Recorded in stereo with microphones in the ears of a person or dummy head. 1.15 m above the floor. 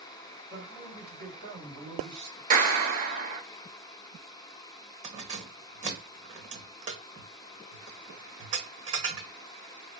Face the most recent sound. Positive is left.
turn(degrees=-35)  # may be behind; listen again after turning